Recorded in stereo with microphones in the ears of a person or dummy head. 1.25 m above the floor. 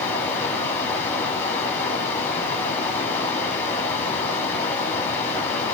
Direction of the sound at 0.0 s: 10° left (ahead or behind).